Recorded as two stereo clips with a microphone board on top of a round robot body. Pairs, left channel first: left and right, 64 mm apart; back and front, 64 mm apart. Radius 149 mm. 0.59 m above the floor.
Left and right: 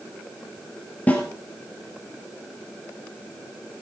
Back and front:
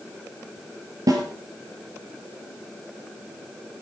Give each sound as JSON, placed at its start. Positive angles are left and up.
{"t": 1.1, "sound": "a snare drum", "azimuth_deg": 25, "distance_m": 2.5}